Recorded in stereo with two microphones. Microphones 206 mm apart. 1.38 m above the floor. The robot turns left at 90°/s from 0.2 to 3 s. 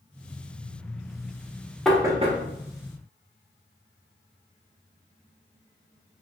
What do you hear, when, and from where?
1.9 s knocking: 5° left (ahead or behind), 0.6 m; by 2.4 s 45° right (ahead or behind), 0.6 m